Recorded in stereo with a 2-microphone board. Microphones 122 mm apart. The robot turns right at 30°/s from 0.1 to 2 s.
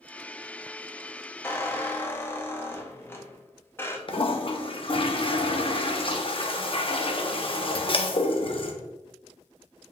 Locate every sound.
1.4 s a squeak: 20° left (ahead or behind), 0.6 m
4.1 s a toilet flushing: 45° left (ahead or behind), 0.6 m